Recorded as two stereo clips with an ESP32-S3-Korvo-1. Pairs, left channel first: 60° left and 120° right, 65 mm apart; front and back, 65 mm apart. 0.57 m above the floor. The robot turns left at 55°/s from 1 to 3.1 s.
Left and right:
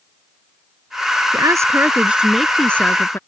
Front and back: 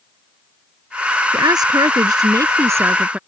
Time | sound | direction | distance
1.3 | a woman speaking | 150° right | ?